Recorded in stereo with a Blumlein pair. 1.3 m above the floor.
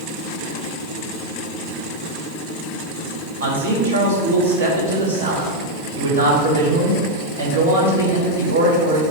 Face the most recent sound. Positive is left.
turn(degrees=-65)